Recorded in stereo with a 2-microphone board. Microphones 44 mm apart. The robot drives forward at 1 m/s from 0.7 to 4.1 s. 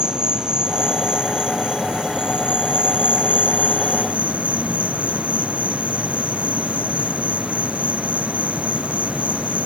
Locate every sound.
0.0 s an insect: 20° right (ahead or behind); by 9.7 s 30° right (ahead or behind)